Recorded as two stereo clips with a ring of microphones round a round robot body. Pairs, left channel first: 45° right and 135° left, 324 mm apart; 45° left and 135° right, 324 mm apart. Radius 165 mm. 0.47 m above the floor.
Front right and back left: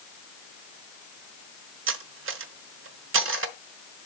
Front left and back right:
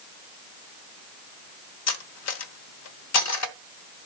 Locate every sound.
1.9 s cutlery clinking: 85° left, 0.9 m